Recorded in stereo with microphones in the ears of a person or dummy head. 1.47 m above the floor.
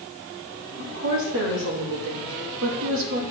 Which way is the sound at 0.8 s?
55° right (ahead or behind).